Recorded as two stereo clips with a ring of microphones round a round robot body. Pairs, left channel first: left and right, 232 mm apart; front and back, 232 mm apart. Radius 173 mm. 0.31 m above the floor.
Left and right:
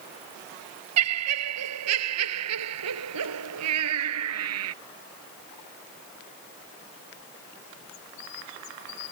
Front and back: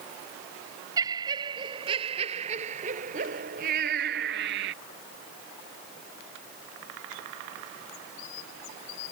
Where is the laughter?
100° right; by 4.8 s 125° right.